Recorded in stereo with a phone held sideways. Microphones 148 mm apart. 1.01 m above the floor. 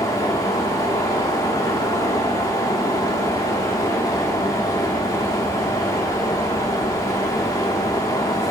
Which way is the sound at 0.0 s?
20° left (ahead or behind).